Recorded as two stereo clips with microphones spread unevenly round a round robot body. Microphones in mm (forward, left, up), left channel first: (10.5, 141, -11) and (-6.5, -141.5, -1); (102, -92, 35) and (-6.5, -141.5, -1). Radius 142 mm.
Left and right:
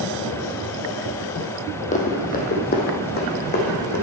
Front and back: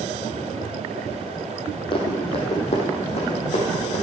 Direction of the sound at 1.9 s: 25° left.